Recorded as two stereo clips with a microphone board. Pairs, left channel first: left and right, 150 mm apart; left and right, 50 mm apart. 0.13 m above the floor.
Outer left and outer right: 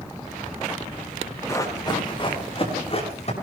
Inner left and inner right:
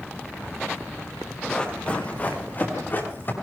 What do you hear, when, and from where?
1.5 s running footsteps: 20° left (ahead or behind), 3.5 m; by 3.3 s 45° left (ahead or behind), 5.5 m